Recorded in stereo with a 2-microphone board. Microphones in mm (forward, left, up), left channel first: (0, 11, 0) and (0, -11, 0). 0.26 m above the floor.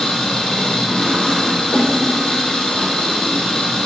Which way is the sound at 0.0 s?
55° left (ahead or behind).